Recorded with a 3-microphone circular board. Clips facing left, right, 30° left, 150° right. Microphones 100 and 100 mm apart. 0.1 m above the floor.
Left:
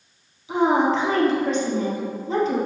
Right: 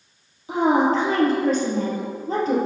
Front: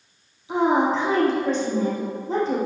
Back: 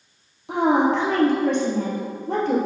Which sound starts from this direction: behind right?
A woman speaking, at 0.5 s.